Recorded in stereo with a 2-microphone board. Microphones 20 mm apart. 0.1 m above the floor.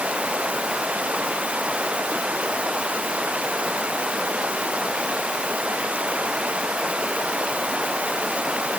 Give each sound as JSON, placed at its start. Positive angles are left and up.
{"t": 0.0, "sound": "running water", "side_deg": -70}